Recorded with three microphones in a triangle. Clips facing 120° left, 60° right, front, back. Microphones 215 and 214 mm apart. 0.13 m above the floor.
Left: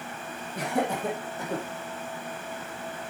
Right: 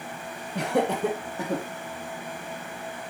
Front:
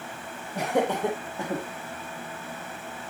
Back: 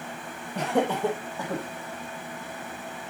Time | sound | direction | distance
0.6 | laughter | 80° right | 3 m